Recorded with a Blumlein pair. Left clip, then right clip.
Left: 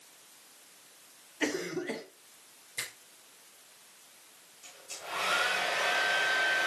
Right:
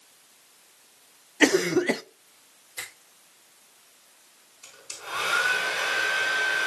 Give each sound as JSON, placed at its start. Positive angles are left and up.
{"t": 1.4, "sound": "a cough", "azimuth_deg": -55, "distance_m": 0.7}
{"t": 2.8, "sound": "a finger snap", "azimuth_deg": -5, "distance_m": 5.0}
{"t": 4.6, "sound": "a hair dryer", "azimuth_deg": -30, "distance_m": 4.5}